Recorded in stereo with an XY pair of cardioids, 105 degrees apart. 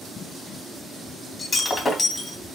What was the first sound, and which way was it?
Breaking glass, 30° left.